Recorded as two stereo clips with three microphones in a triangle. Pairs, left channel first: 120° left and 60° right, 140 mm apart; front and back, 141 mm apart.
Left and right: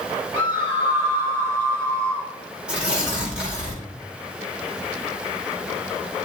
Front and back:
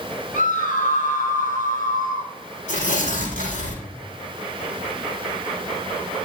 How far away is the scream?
About 5 m.